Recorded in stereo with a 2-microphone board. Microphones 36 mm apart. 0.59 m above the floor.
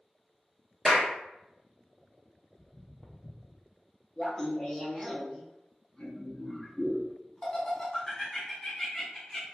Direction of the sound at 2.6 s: 25° right (ahead or behind).